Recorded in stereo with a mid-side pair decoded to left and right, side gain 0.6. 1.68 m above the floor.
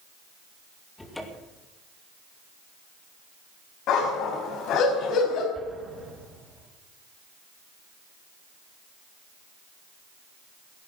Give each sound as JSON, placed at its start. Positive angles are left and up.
{"t": 1.0, "sound": "a cupboard door", "azimuth_deg": 15, "distance_m": 2.5}
{"t": 3.9, "sound": "a dog barking", "azimuth_deg": 65, "distance_m": 4.0}
{"t": 5.5, "sound": "an explosion", "azimuth_deg": -20, "distance_m": 6.5}